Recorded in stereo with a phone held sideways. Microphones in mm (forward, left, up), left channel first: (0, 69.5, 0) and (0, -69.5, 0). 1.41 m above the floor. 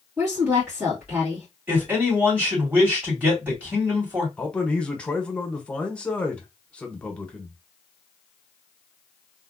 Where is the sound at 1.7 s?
15° right (ahead or behind), 2 m.